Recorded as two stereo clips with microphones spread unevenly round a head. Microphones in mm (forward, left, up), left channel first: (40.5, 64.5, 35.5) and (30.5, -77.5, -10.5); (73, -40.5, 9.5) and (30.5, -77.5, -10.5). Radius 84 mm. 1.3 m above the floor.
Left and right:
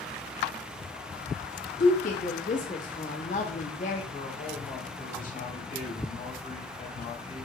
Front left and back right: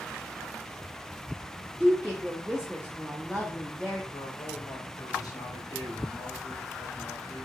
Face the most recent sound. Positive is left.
turn(degrees=50)